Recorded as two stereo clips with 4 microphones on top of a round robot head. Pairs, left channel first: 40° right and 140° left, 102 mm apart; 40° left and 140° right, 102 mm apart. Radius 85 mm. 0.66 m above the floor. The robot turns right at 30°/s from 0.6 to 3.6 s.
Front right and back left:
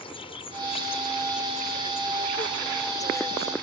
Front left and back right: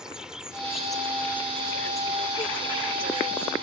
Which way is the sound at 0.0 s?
60° right.